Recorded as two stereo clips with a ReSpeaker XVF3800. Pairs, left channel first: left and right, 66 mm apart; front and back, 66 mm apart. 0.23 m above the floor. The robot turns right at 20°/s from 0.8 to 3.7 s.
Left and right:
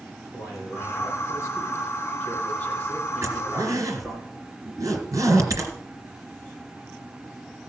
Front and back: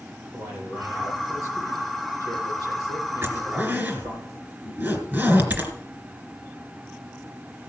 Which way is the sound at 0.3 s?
125° left.